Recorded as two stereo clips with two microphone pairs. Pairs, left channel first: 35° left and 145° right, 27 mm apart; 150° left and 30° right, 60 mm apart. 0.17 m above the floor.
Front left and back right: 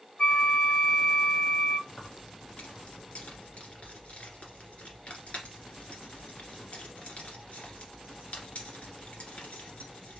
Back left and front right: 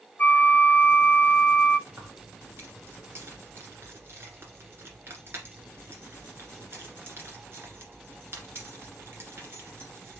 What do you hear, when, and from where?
0.2 s a flute: 90° left, 0.6 m
1.9 s keys jangling: 10° left, 1.6 m